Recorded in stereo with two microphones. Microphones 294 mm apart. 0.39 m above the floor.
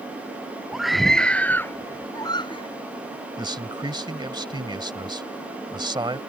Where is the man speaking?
15° right (ahead or behind).